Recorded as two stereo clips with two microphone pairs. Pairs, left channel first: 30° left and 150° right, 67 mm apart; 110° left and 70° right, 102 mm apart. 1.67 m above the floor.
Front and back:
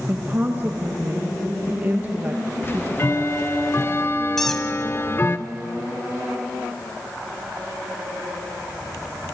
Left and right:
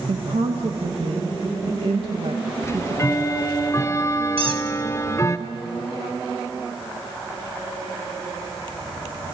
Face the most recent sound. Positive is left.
turn(degrees=-55)